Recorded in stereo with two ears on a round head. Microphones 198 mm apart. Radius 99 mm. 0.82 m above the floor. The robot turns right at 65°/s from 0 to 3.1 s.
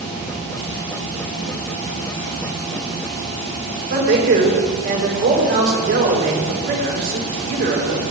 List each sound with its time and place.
3.9 s a man speaking: 45° right (ahead or behind), 3.5 m